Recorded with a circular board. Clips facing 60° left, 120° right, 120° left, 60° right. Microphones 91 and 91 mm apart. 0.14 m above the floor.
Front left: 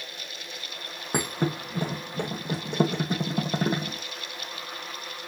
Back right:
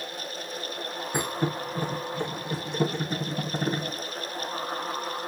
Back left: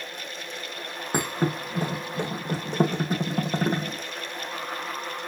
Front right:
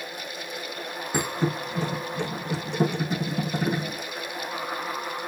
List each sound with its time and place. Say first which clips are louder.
1.1 s a thud: front left 1 dB, even; 80° left, 2.5 m